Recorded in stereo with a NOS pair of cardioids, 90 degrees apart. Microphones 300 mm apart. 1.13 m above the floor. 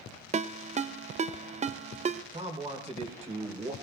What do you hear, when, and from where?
0.3 s a ringtone: 25° right, 0.5 m
2.3 s a man speaking: 20° right, 3.5 m